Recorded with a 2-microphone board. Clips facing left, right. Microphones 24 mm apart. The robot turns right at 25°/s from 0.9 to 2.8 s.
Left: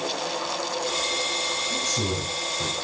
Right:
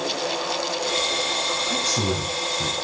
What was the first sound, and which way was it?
A man speaking, 60° right (ahead or behind).